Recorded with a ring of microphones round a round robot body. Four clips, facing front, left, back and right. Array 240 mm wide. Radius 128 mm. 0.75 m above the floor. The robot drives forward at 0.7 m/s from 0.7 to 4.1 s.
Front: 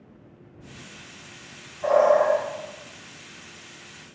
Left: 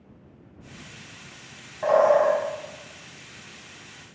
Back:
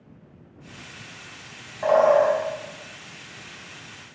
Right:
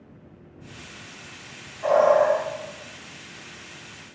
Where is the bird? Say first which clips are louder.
Right 1 dB, back 1 dB; 145° left, 2 m; by 2.4 s 150° left, 2.5 m.